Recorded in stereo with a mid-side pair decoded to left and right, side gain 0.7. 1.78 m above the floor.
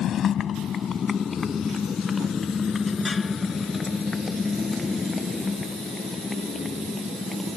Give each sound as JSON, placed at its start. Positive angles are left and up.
{"t": 0.0, "sound": "a motorcycle", "azimuth_deg": 45}